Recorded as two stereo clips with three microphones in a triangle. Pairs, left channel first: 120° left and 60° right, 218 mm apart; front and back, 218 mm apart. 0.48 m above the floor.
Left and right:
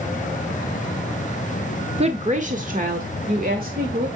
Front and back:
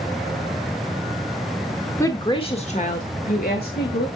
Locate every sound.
2.0 s a woman speaking: 65° right, 1.0 m; by 4.1 s 25° right, 2.0 m